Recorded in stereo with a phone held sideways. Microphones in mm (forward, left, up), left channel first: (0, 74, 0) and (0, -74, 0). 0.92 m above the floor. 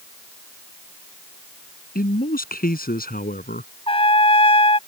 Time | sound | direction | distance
1.9 | a man speaking | 70° left (ahead or behind) | ?
3.9 | a trumpet | 35° left (ahead or behind) | ?